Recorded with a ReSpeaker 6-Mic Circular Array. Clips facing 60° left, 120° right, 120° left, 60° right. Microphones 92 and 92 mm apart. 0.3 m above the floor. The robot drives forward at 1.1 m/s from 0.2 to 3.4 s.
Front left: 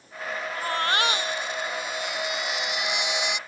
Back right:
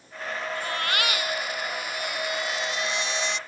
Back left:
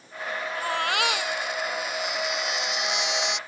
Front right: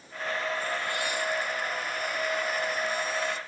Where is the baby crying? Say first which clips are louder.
Front left 5 dB, back left 5 dB; 115° left; by 3.4 s 135° left.